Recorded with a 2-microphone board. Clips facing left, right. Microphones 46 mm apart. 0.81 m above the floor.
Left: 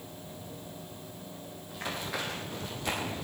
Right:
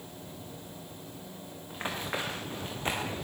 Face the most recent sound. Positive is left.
turn(degrees=-40)  # may be behind; listen again after turning